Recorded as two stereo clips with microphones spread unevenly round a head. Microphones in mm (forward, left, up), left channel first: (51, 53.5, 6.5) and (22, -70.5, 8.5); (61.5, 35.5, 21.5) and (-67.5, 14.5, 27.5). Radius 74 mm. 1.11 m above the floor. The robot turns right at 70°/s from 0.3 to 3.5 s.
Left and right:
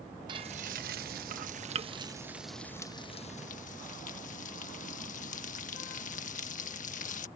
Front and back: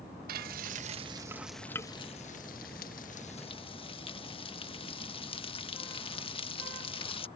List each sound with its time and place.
0.3 s frying: 165° right; by 7.3 s 55° left